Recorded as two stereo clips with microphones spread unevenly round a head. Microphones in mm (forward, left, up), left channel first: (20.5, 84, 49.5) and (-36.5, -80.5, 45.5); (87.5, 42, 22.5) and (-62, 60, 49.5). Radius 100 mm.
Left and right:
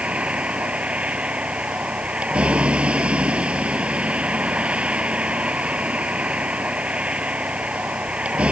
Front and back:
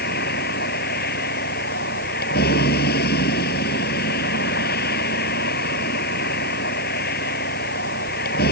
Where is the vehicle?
25° right.